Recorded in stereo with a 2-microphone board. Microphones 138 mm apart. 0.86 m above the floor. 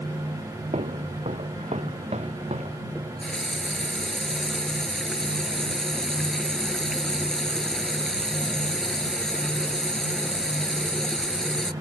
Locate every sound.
0.7 s footsteps: 50° right (ahead or behind)
3.0 s a running tap: 5° left (ahead or behind)